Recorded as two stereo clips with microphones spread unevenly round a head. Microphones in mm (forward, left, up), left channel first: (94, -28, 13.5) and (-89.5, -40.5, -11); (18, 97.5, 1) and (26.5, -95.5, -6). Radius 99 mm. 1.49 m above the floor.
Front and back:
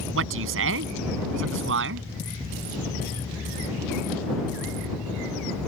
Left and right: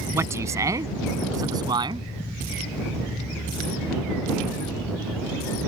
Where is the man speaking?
165° right; by 2.1 s 160° right.